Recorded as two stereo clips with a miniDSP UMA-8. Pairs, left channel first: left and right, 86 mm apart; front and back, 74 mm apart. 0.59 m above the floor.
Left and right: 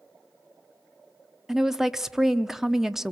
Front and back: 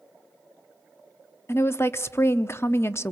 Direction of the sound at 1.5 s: 10° right.